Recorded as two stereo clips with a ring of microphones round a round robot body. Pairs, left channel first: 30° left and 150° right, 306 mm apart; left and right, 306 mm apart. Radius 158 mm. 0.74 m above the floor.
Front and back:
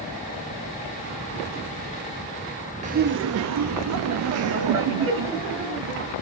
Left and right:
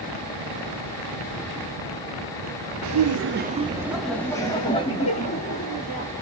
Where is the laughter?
85° right, 0.7 m; by 6.1 s 155° left, 2.5 m.